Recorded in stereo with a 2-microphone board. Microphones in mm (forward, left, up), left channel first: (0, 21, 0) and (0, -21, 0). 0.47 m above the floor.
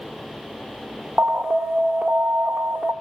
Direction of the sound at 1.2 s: 45° right (ahead or behind).